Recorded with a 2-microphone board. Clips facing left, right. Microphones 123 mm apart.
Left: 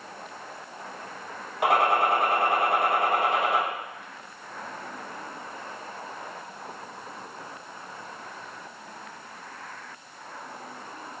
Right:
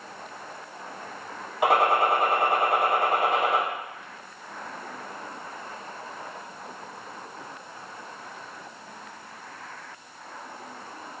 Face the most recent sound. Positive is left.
turn(degrees=-5)  # may be behind; listen again after turning